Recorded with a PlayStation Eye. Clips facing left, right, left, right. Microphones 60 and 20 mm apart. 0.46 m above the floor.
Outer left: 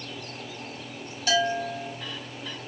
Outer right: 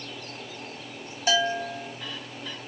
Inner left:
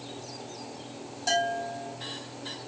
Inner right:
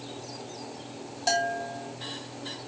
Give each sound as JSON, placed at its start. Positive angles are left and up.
{"t": 1.3, "sound": "a bell", "side_deg": -20, "distance_m": 0.8}